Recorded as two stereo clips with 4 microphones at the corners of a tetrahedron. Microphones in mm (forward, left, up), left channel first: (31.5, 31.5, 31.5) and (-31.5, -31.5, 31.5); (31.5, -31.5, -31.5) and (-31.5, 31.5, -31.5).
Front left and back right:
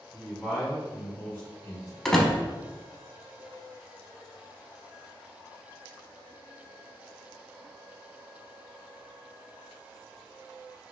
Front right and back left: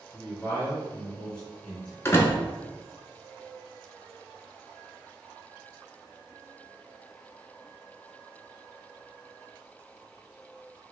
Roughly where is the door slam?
Ahead right.